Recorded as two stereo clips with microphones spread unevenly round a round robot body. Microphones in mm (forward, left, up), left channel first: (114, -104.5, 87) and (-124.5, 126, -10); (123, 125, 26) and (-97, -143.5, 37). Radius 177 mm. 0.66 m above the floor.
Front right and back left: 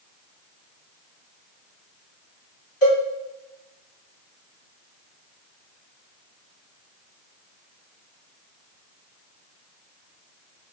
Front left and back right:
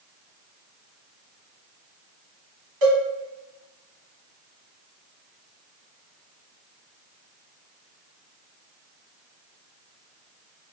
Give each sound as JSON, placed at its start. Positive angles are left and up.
{"t": 2.8, "sound": "a cowbell", "azimuth_deg": -90, "distance_m": 1.3}